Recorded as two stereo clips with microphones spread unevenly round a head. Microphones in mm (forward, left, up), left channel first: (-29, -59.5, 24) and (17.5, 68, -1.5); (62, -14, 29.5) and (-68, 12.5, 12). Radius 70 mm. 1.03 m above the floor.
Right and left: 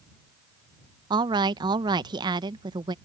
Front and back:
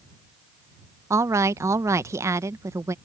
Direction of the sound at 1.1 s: 110° left.